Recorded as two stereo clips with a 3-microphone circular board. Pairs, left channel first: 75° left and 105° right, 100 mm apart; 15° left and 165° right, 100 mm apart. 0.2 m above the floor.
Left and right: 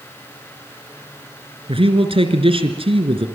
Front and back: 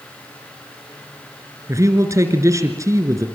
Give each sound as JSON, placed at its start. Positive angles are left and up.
{"t": 1.7, "sound": "a man speaking", "azimuth_deg": -110, "distance_m": 3.0}